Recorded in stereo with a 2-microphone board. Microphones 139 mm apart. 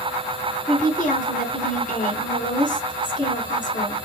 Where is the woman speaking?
65° left (ahead or behind), 3 m.